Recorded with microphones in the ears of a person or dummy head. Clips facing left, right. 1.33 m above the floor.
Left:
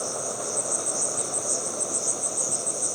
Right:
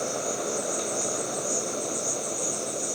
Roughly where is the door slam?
I don't hear a door slam.